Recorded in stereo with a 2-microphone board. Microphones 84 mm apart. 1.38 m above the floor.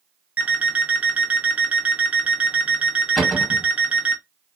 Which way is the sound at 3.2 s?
Centre (ahead or behind).